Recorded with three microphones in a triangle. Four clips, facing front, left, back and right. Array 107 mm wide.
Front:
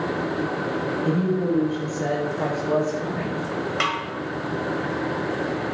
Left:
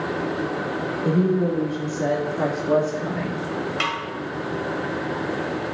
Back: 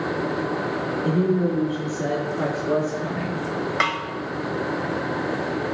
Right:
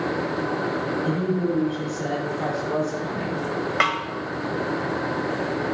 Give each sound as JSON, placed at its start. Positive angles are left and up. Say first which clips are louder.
{"t": 1.0, "sound": "a woman speaking", "louder": "left 6 dB, back 2 dB", "azimuth_deg": 135, "distance_m": 3.5}
{"t": 3.8, "sound": "a snare drum", "louder": "right 7 dB, back 2 dB", "azimuth_deg": -115, "distance_m": 1.4}